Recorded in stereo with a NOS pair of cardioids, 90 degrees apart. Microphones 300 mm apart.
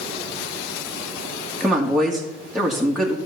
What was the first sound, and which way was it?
A woman speaking, straight ahead.